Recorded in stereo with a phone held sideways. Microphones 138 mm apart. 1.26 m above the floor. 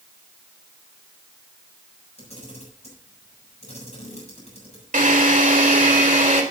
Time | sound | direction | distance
2.2 | a camera shutter | 50° left (ahead or behind) | 7.5 m
4.9 | a drill | 75° right (ahead or behind) | 4 m